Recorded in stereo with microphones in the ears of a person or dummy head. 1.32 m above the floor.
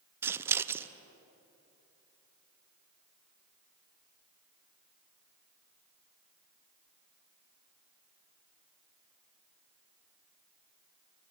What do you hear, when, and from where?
0.2 s scissors: 10° right (ahead or behind), 0.6 m